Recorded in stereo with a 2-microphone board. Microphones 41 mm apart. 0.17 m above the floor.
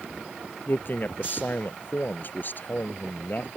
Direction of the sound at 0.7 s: 50° left (ahead or behind).